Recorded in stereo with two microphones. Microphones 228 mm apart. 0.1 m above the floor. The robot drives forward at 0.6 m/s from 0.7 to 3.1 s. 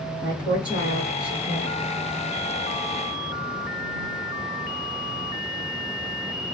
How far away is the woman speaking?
About 1.5 m.